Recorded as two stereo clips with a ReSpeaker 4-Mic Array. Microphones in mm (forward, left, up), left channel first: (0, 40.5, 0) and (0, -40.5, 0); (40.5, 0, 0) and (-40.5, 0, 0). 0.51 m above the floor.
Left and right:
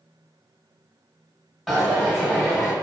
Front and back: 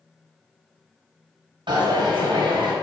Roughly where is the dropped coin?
Behind.